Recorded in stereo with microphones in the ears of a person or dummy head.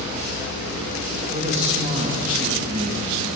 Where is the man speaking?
35° right (ahead or behind), 1.7 m.